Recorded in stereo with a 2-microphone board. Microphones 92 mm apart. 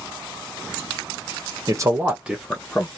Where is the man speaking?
40° right (ahead or behind), 0.9 m; by 2.9 s 15° left (ahead or behind), 1.1 m.